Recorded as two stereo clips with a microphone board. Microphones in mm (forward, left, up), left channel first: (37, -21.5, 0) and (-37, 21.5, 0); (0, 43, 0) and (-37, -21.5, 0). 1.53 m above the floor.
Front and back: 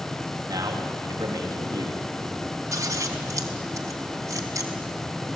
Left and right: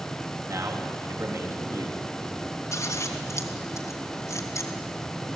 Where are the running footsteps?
I don't hear running footsteps.